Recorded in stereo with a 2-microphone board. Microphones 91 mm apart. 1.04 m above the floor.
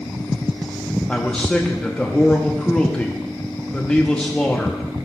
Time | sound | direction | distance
1.1 | a man speaking | 10° left (ahead or behind) | 0.7 m